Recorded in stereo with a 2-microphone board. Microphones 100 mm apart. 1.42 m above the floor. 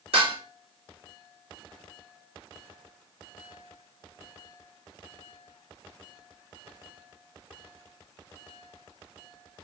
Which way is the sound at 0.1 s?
80° right.